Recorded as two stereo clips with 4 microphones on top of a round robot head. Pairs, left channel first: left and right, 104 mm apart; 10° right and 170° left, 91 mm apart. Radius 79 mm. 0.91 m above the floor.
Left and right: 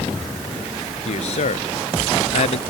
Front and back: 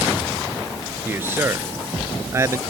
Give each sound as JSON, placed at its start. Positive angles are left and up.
{"t": 1.1, "sound": "a man speaking", "azimuth_deg": 105}